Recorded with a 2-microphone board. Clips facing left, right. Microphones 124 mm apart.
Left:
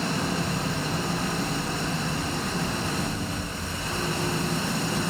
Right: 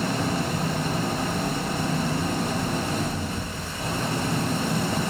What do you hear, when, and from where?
0.0 s an engine running: 45° right (ahead or behind), 7 m